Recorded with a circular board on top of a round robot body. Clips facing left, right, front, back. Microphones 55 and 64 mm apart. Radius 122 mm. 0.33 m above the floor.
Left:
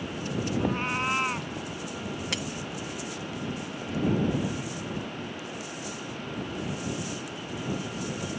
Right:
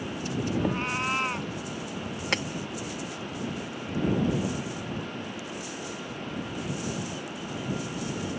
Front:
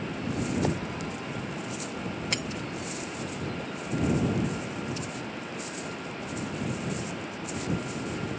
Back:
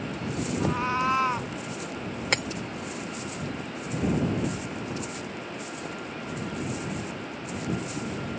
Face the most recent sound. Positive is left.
turn(degrees=-140)